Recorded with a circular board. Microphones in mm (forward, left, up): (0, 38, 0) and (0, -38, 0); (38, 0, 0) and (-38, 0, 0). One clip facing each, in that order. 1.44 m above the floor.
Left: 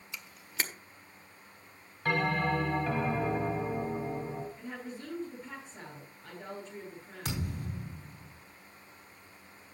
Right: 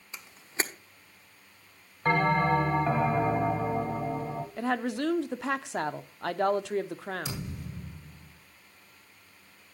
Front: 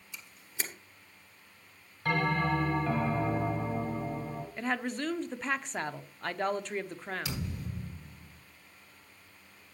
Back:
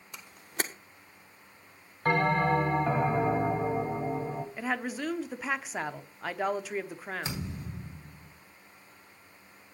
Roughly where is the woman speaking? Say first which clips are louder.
Right 13 dB, front 1 dB; right.